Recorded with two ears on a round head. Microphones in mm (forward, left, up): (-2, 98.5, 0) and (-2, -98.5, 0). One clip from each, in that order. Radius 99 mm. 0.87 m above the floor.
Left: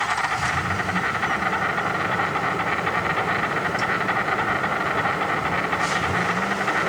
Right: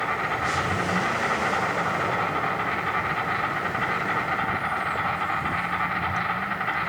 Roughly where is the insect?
Centre.